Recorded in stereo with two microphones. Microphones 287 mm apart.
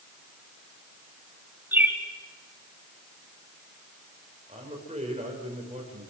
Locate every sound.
1.7 s a bird: 5° right (ahead or behind), 2.5 m
4.5 s a man speaking: 20° right (ahead or behind), 6 m